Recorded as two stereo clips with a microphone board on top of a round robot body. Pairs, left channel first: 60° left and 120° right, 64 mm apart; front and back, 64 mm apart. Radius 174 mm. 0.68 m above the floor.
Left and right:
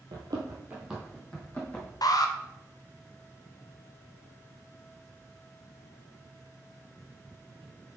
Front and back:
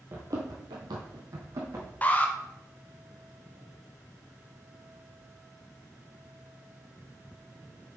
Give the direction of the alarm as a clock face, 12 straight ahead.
10 o'clock.